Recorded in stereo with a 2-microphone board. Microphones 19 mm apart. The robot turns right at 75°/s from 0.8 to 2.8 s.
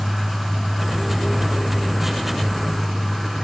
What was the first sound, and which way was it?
Only background noise.